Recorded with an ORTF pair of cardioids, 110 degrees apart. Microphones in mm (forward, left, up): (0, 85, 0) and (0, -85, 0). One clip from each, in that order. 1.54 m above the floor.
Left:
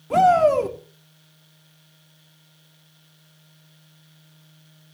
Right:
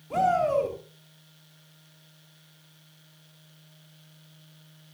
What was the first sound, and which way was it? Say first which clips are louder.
A shout: left 8 dB; 50° left.